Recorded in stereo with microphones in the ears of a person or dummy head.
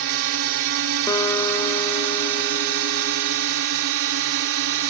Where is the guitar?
15° left (ahead or behind).